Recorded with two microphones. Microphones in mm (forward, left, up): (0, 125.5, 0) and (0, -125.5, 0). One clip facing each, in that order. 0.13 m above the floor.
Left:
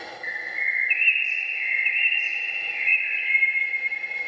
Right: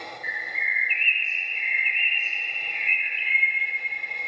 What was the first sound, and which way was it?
A bird, 20° left (ahead or behind).